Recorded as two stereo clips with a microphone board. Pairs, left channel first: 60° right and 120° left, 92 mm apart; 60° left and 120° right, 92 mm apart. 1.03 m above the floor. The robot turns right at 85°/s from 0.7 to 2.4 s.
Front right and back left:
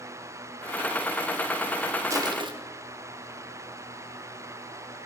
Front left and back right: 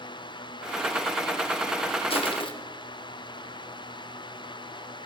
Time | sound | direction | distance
2.1 | crushing | 65° left | 1.8 m